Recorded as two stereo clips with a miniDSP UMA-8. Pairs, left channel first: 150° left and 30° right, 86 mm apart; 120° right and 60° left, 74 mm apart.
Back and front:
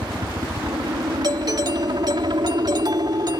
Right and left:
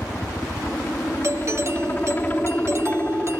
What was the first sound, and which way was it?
A helicopter, 55° right.